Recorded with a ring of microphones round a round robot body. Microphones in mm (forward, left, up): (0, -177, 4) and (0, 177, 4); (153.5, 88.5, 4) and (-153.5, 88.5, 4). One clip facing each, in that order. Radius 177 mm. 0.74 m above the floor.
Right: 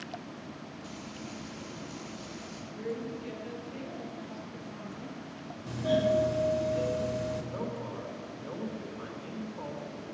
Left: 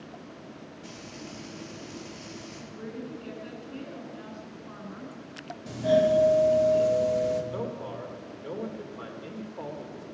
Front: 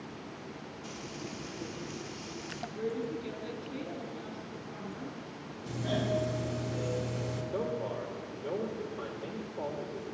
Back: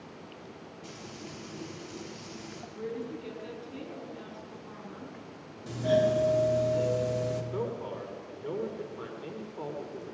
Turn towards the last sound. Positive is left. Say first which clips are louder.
# left 2 dB, even
turn(degrees=110)